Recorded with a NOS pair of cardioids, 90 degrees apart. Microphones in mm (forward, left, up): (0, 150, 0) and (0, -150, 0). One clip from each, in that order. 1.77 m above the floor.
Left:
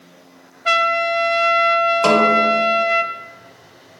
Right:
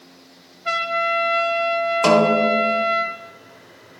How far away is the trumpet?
About 0.7 m.